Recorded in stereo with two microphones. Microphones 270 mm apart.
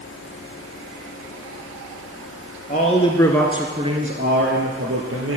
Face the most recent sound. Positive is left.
turn(degrees=-60)  # may be behind; listen again after turning